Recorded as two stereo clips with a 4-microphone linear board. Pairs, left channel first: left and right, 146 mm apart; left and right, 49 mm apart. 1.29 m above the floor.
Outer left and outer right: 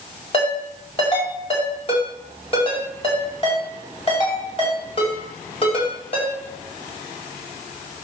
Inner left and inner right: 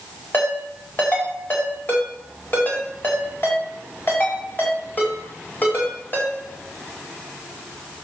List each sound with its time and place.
0.3 s a ringtone: 40° left (ahead or behind), 5 m